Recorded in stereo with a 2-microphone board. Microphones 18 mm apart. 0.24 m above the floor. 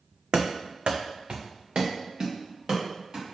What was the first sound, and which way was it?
Running footsteps, 55° right (ahead or behind).